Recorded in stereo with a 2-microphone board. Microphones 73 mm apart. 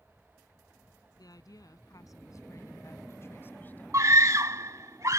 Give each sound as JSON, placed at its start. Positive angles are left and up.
{"t": 1.2, "sound": "a woman speaking", "side_deg": 60}
{"t": 3.9, "sound": "a scream", "side_deg": -45}